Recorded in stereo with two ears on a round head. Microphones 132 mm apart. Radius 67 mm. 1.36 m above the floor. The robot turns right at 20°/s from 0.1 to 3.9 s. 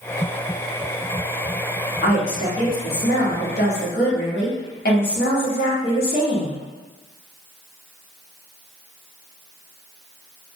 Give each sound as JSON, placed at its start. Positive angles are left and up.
{"t": 2.0, "sound": "a woman speaking", "azimuth_deg": 50, "distance_m": 1.2}